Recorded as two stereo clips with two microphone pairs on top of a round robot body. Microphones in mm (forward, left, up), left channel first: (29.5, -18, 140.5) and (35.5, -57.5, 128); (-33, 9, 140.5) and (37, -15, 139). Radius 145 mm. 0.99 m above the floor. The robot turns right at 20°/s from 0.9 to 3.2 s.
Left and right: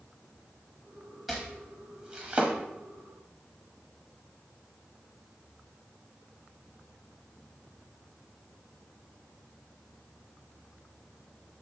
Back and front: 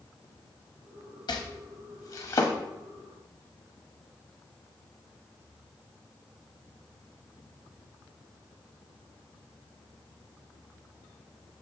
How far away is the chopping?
About 0.9 m.